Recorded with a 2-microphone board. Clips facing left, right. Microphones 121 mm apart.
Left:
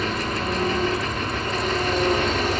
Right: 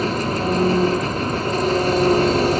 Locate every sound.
0.0 s an engine running: 40° right (ahead or behind), 1.1 m